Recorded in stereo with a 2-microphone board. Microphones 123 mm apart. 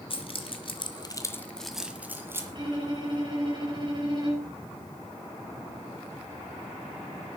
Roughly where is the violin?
Right.